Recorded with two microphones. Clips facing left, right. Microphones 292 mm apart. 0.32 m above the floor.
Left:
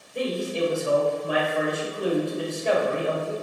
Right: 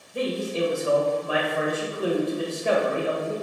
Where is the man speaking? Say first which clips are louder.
Even; 5° right (ahead or behind), 1.2 m.